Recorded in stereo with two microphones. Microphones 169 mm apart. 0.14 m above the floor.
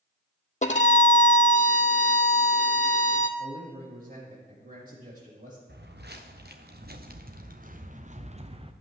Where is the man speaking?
60° right (ahead or behind), 6 m.